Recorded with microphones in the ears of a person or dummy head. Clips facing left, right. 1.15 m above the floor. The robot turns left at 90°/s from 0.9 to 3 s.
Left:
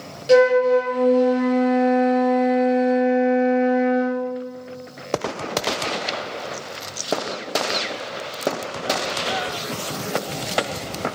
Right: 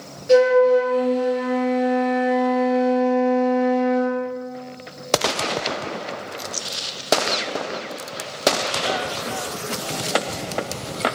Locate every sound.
0.3 s a flute: 110° left, 0.6 m; by 4.2 s 80° right, 0.6 m